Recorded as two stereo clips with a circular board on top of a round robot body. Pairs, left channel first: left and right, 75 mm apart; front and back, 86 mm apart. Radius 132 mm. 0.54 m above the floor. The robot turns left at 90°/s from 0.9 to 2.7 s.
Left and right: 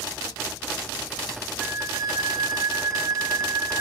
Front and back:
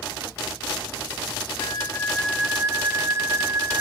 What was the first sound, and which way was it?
A flute, 25° right.